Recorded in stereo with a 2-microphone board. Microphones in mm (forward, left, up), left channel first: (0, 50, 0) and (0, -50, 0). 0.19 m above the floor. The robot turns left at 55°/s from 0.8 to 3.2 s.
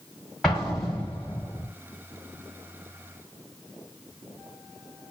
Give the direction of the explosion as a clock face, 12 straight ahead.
6 o'clock.